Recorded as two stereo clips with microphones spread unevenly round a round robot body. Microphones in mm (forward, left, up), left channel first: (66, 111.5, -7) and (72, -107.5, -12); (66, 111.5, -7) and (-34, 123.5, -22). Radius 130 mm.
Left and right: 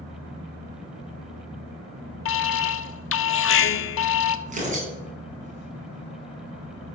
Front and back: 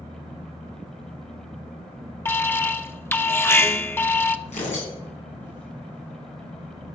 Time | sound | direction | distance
2.2 | an alarm | 65° left | 1.2 m
4.5 | tearing paper | 30° right | 7.5 m